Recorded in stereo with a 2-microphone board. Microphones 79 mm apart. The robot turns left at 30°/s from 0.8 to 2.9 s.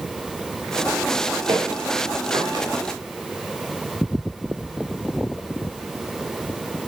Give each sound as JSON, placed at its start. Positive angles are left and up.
{"t": 1.5, "sound": "footsteps", "side_deg": -65, "distance_m": 8.0}